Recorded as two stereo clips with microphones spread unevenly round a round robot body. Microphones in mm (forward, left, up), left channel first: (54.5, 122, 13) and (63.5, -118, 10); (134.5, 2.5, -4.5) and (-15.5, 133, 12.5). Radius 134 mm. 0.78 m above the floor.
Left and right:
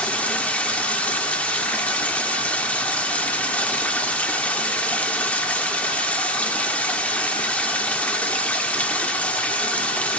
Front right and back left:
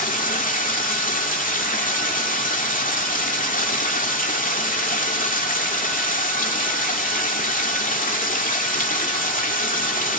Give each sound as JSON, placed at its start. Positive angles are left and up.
{"t": 0.0, "sound": "running water", "azimuth_deg": 10, "distance_m": 1.3}